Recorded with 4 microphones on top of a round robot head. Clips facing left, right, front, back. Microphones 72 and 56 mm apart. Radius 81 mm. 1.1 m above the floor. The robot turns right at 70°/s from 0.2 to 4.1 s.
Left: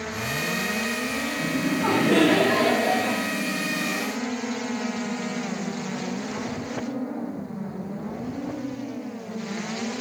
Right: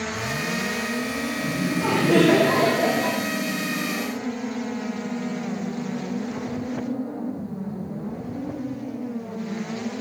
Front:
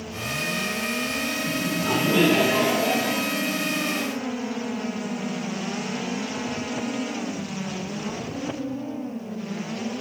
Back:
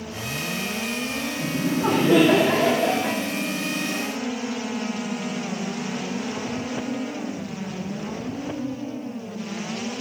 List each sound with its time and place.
1.4 s laughter: 130° left, 2.0 m; by 3.2 s 105° right, 2.0 m